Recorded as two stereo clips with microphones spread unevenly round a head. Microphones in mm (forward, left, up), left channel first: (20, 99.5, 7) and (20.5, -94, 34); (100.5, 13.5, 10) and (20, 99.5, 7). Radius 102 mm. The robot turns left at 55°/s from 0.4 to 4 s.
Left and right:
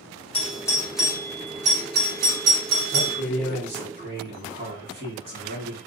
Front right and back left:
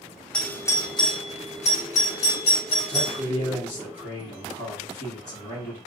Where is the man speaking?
35° left, 1.2 m; by 5.8 s 25° right, 1.2 m.